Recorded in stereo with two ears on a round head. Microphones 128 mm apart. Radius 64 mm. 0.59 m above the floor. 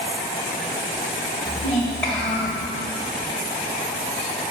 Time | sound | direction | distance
1.4 | a child speaking | centre (ahead or behind) | 2 m